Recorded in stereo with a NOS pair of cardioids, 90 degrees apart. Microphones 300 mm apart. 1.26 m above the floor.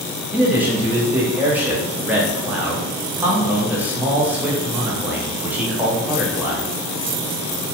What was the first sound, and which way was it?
A man speaking, 5° right.